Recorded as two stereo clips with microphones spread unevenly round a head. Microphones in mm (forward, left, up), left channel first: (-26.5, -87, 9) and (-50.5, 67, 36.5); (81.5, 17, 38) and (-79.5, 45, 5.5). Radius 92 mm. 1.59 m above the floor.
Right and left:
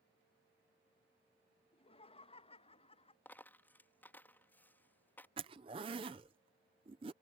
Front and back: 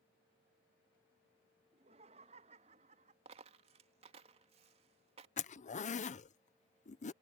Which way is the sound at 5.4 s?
35° left.